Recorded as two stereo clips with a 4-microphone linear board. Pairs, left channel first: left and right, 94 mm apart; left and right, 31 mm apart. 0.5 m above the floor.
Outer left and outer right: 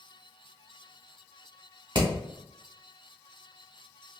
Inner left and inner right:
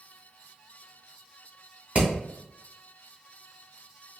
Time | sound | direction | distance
1.9 | hammering | 50° right (ahead or behind) | 1.1 m